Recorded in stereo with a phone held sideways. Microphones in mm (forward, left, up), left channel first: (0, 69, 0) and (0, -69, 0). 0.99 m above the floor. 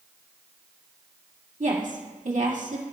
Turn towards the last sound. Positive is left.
turn(degrees=-65)  # may be behind; listen again after turning